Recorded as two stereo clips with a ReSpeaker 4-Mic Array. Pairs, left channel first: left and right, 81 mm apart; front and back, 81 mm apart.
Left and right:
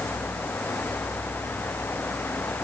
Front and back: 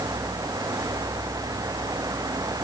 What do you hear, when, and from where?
Only background noise.